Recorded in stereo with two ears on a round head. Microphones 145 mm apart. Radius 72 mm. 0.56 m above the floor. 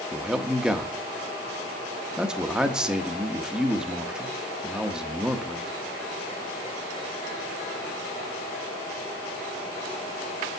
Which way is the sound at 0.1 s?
5° right (ahead or behind).